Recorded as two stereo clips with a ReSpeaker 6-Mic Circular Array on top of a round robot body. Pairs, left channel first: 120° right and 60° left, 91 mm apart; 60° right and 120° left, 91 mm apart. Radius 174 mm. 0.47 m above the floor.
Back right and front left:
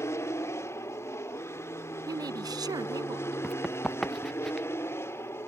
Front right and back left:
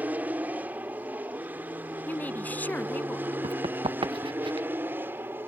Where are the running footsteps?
150° left; by 4.7 s 155° left.